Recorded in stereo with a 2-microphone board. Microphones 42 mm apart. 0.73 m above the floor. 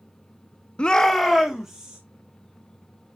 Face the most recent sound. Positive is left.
turn(degrees=-10)  # may be behind; listen again after turning